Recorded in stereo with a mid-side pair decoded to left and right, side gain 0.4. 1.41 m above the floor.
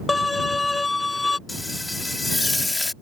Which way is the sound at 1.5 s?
15° left.